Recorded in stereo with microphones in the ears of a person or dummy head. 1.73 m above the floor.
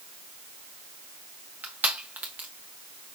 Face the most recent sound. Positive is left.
turn(degrees=-10)  # may be behind; listen again after turning